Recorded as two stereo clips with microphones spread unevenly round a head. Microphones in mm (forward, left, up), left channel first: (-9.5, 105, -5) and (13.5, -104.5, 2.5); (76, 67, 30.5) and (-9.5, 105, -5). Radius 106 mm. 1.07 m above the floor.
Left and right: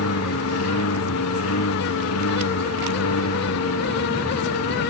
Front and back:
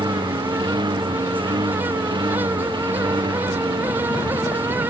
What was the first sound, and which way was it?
A lawn mower, 115° left.